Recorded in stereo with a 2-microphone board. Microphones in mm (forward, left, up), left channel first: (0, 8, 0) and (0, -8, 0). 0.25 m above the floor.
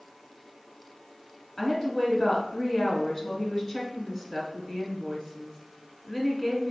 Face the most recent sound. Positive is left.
turn(degrees=30)  # may be behind; listen again after turning